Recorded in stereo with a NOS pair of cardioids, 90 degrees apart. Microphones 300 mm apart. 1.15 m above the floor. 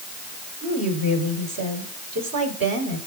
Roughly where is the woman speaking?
Ahead right.